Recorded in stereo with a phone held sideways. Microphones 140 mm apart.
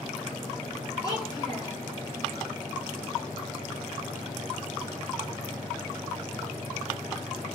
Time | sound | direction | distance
1.0 | a child speaking | 25° left (ahead or behind) | 0.6 m